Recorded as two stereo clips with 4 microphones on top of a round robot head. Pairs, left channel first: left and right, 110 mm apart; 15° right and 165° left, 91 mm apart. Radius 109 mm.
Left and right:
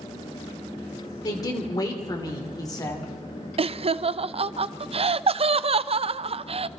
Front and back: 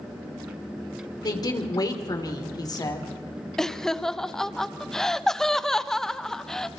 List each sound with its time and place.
1.2 s a woman speaking: 30° left, 3 m
3.6 s laughter: 100° right, 0.6 m